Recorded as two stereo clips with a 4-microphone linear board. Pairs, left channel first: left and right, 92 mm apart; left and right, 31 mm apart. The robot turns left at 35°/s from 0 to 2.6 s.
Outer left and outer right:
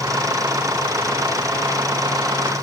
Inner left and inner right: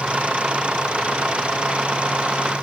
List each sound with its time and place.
Only background noise.